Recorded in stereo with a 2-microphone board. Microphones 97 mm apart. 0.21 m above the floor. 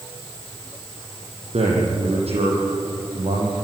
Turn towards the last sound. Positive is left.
turn(degrees=-80)